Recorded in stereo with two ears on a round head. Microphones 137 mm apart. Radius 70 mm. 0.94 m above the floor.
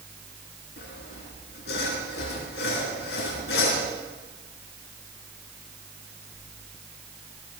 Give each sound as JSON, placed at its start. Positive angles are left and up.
{"t": 0.8, "sound": "sawing", "side_deg": 85, "distance_m": 4.5}